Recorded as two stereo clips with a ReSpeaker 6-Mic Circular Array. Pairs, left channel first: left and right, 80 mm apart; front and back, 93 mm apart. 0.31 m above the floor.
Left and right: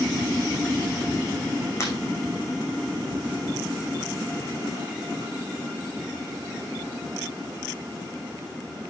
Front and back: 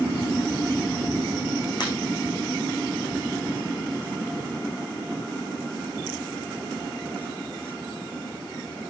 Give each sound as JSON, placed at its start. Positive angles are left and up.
{"t": 1.8, "sound": "breaking glass", "azimuth_deg": 40, "distance_m": 5.5}